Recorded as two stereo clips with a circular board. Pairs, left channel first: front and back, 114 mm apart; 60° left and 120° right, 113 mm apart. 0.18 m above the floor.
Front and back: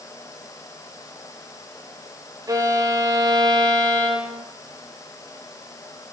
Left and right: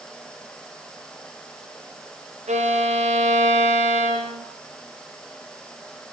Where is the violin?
120° right, 5 m.